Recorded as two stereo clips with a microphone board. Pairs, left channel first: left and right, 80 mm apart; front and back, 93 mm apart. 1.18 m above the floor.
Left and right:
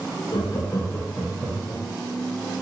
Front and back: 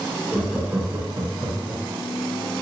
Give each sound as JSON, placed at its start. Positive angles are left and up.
{"t": 0.3, "sound": "laughter", "azimuth_deg": 80, "distance_m": 0.8}